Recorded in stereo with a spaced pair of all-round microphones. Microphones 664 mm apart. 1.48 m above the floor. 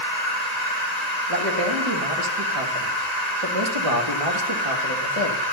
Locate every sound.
0.0 s a machine running: 80° right, 8.5 m
1.3 s a man speaking: 55° right (ahead or behind), 2.5 m